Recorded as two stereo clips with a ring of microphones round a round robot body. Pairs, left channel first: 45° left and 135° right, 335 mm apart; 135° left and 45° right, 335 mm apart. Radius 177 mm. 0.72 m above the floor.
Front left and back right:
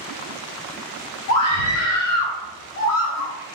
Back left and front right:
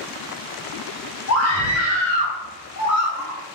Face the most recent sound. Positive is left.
turn(degrees=90)